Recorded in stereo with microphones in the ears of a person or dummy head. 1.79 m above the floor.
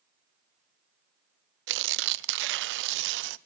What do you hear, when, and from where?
1.7 s tearing paper: 65° right (ahead or behind), 0.7 m